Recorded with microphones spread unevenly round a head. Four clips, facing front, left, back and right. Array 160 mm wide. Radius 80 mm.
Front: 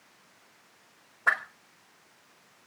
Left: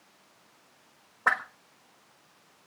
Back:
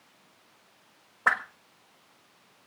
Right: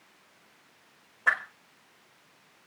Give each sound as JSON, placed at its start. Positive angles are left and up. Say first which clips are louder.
{"t": 1.3, "sound": "a whoosh", "louder": "left 1 dB, back 1 dB", "azimuth_deg": 140, "distance_m": 1.8}